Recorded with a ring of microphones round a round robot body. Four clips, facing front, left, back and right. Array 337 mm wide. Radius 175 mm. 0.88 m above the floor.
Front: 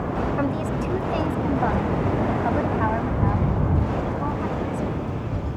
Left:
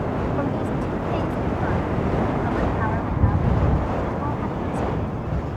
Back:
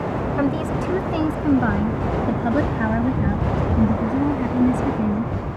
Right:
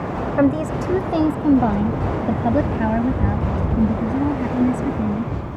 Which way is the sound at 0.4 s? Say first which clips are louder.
Right 6 dB, back 3 dB; 100° right.